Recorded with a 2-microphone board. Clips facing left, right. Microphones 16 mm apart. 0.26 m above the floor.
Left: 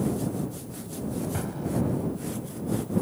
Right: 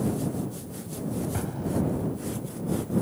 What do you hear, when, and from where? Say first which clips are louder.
1.3 s an explosion: even; 5° left (ahead or behind)